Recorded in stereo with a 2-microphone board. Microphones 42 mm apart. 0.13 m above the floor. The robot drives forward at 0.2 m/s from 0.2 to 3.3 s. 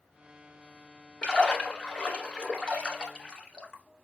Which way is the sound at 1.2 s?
20° left (ahead or behind).